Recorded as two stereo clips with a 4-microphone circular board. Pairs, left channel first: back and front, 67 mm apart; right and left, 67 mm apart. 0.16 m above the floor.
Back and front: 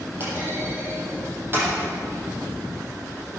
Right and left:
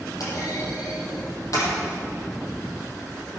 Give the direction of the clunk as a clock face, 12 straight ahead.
2 o'clock.